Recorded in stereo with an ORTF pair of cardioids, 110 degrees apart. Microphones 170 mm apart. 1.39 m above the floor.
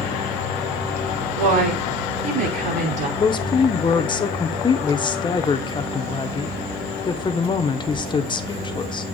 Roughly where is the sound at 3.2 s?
Ahead left.